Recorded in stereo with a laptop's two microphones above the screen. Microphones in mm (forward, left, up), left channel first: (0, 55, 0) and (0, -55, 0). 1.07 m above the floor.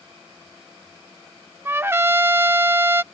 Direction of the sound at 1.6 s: 20° right (ahead or behind).